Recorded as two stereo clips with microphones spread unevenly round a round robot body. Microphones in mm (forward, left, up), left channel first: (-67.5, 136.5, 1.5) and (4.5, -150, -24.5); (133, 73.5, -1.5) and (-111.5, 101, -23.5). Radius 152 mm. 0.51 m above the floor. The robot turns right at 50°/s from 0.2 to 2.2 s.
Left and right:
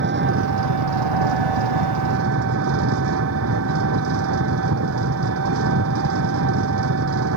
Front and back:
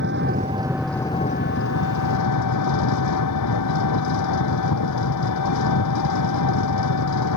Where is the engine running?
130° right; by 7.4 s 30° right.